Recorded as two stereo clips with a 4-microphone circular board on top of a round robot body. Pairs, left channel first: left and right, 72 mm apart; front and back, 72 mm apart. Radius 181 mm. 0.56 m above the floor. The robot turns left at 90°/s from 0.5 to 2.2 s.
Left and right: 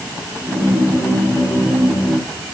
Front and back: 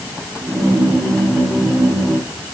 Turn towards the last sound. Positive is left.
No sound to turn to.